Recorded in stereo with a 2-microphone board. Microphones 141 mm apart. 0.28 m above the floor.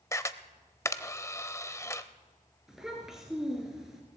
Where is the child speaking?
5° right (ahead or behind), 2.5 m.